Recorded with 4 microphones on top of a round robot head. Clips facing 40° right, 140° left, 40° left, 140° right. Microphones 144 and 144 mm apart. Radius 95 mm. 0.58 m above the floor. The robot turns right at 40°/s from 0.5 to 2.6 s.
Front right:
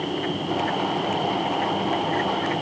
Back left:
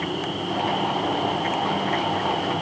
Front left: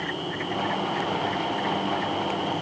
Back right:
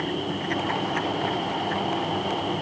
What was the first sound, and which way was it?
Only background noise.